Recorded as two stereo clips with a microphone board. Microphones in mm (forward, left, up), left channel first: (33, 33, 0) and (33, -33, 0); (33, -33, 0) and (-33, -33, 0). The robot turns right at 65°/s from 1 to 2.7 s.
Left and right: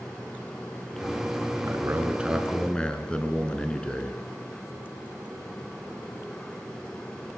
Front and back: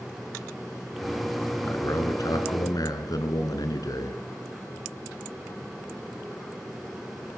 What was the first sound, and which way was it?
A man speaking, 55° right.